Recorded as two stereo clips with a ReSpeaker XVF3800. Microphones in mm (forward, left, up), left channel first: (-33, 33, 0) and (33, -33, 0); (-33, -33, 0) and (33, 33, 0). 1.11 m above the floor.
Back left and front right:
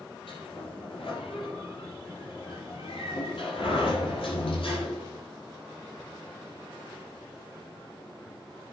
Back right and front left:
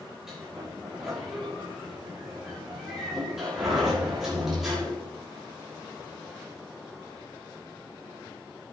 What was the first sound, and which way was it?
A sliding door, 130° left.